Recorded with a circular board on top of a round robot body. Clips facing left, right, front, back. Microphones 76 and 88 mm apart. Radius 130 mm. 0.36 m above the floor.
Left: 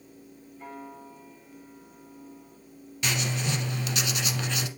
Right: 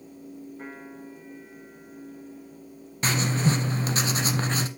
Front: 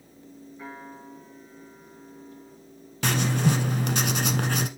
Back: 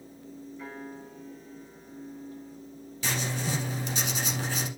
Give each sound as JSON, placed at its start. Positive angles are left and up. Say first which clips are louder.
{"t": 0.6, "sound": "a piano", "louder": "right 1 dB, front 2 dB", "azimuth_deg": -65, "distance_m": 5.5}
{"t": 3.0, "sound": "writing", "louder": "right 5 dB, front 8 dB", "azimuth_deg": -35, "distance_m": 0.9}